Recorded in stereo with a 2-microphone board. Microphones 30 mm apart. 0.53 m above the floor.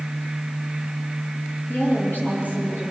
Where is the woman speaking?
85° left, 9 m.